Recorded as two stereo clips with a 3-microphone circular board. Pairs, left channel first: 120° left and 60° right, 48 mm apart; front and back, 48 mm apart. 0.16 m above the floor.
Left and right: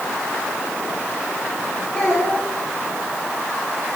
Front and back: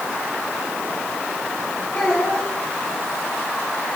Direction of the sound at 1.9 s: 40° left.